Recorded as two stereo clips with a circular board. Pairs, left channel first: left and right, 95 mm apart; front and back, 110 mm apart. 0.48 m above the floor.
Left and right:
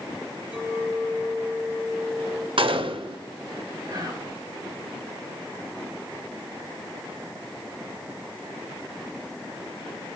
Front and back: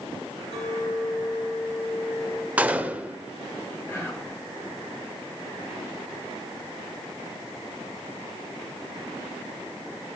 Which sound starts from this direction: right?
A gunshot, at 2.6 s.